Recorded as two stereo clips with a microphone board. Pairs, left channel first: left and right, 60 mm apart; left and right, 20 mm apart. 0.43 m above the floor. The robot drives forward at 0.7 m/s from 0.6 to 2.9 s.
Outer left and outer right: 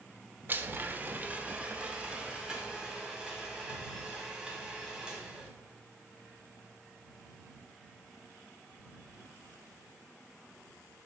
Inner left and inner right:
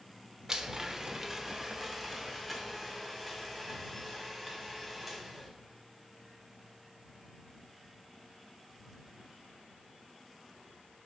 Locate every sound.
0.5 s a blender: 35° right (ahead or behind), 0.7 m; by 5.5 s 10° right (ahead or behind), 1.9 m